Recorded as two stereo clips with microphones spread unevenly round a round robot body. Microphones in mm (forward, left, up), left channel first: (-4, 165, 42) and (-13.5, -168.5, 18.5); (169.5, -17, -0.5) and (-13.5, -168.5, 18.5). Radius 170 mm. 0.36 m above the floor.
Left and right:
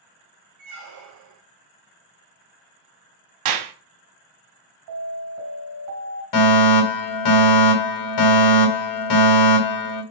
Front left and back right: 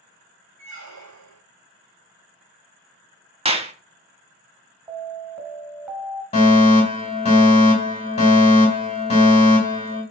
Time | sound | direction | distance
0.6 | a squeak | 135° right | 2.5 m
3.5 | a clap | 75° right | 2.5 m
4.9 | an alarm | 60° right | 3.5 m
6.3 | a fire alarm | 105° left | 3.5 m